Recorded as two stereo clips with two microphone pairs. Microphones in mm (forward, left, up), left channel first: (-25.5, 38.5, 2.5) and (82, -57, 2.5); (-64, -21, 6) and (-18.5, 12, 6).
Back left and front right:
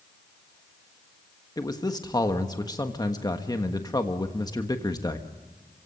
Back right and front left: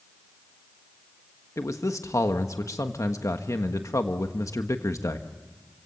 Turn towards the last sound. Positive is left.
turn(degrees=-160)